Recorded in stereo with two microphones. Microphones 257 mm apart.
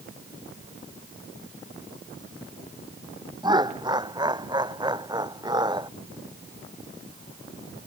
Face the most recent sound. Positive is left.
turn(degrees=-15)  # may be behind; listen again after turning